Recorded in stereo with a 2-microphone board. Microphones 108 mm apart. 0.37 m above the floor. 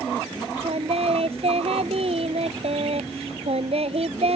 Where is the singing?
65° right (ahead or behind).